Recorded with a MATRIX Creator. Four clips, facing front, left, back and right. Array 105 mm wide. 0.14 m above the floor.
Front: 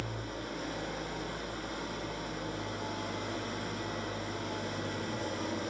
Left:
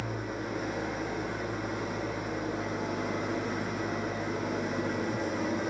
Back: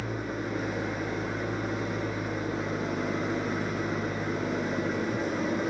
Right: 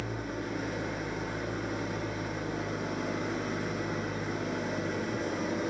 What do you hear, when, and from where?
0.0 s an engine running: straight behind, 1.3 m